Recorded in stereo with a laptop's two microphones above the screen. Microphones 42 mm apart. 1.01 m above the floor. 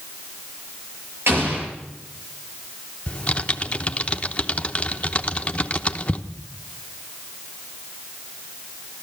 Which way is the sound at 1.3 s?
70° right (ahead or behind).